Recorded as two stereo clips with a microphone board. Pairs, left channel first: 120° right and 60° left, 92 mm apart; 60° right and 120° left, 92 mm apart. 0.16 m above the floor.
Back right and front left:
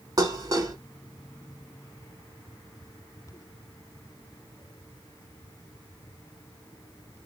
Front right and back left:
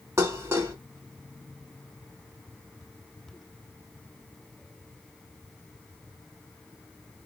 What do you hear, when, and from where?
0.2 s dishes clattering: 75° left, 1.0 m